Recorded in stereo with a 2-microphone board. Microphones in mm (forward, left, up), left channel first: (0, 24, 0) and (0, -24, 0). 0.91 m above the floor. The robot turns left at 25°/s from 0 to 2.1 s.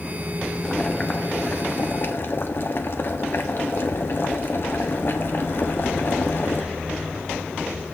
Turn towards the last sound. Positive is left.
turn(degrees=130)